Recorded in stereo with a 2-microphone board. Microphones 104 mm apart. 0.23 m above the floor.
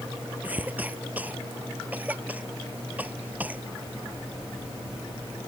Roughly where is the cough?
Centre.